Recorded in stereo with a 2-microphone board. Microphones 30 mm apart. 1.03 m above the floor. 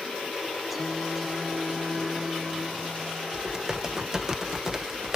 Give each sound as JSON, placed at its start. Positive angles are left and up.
{"t": 0.7, "sound": "singing", "side_deg": -5}
{"t": 3.3, "sound": "typing on a keyboard", "side_deg": -20}